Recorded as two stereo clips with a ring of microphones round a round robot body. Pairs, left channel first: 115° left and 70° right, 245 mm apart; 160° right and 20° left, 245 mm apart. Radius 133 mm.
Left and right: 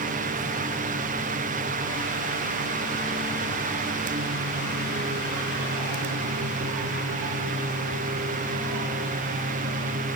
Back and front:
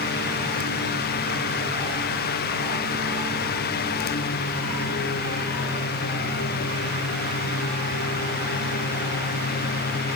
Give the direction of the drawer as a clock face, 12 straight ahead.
No drawer in this recording.